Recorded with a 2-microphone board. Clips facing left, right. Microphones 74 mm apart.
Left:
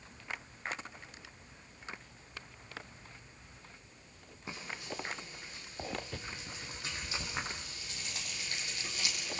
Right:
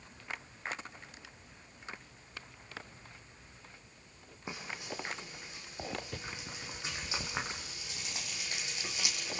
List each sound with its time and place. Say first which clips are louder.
4.5 s frying: right 1 dB; 20° right (ahead or behind), 4.5 m